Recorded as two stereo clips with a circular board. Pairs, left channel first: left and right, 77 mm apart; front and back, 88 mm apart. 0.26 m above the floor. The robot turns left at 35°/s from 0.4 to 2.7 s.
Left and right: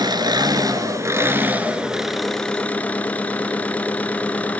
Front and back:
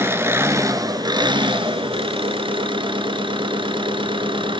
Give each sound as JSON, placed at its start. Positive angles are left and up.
{"t": 0.0, "sound": "an engine running", "azimuth_deg": -120, "distance_m": 1.6}